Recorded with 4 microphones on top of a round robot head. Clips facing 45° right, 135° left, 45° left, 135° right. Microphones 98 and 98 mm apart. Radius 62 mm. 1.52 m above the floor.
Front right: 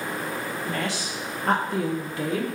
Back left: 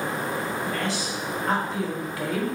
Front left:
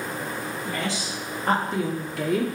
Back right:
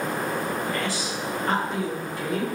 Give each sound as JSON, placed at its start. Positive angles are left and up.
{"t": 0.7, "sound": "a woman speaking", "azimuth_deg": -30, "distance_m": 1.7}